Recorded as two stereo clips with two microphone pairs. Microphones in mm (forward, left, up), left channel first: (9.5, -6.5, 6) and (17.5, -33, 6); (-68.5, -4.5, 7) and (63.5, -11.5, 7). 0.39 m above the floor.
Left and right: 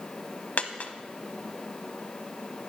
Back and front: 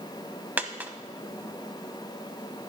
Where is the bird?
No bird in this recording.